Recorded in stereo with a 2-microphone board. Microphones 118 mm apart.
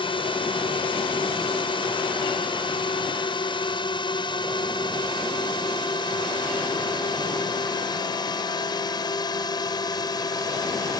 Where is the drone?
45° left (ahead or behind); by 11.0 s 35° left (ahead or behind).